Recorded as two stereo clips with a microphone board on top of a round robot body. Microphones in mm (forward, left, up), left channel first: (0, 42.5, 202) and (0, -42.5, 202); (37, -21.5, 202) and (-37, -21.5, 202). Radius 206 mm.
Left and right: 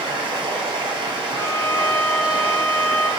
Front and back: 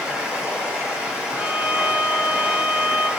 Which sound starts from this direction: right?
Running water, at 0.0 s.